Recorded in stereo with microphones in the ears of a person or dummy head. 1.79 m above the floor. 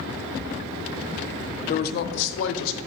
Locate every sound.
1.7 s a woman speaking: 40° left (ahead or behind), 0.5 m; by 2.8 s 70° left (ahead or behind), 0.8 m